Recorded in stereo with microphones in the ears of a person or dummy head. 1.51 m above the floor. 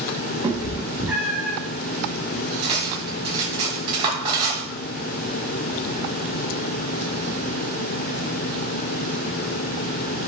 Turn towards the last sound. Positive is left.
turn(degrees=-30)  # may be behind; listen again after turning